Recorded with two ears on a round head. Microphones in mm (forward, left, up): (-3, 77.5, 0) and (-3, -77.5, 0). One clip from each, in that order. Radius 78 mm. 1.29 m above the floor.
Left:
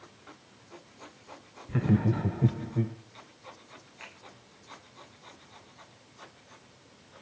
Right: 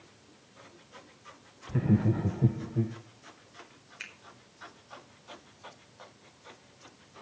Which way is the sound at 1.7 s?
35° left (ahead or behind).